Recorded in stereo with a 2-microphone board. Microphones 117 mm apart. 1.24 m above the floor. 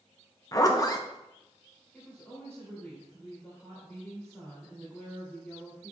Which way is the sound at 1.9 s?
10° left (ahead or behind).